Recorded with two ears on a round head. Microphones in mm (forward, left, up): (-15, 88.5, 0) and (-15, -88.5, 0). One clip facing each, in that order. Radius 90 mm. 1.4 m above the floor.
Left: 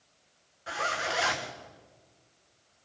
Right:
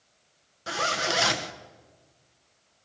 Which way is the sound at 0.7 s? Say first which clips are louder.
Right 4 dB; 50° right (ahead or behind).